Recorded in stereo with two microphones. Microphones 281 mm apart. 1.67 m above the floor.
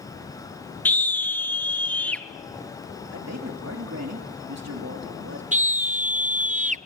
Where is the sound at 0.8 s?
5° left (ahead or behind), 0.6 m.